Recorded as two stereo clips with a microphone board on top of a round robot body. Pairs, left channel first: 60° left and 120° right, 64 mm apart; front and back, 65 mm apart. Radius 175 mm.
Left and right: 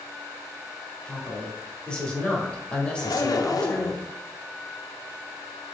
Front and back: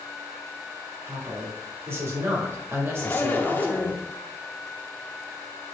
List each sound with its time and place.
1.1 s a woman speaking: 135° left, 2.5 m
3.0 s a zipper: 60° left, 1.1 m